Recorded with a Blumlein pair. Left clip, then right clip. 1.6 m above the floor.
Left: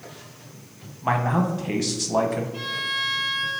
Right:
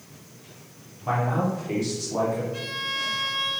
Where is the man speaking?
30° left, 0.9 m.